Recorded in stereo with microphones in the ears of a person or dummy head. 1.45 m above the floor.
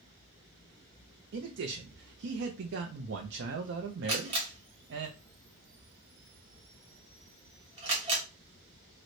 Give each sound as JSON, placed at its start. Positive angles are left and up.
{"t": 1.3, "sound": "a man speaking", "side_deg": -65, "distance_m": 0.5}
{"t": 4.1, "sound": "a camera shutter", "side_deg": -25, "distance_m": 0.9}